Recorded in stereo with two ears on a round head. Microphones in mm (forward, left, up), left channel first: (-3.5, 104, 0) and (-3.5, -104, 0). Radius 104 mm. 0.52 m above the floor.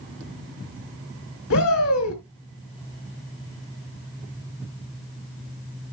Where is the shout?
65° left (ahead or behind), 3 m.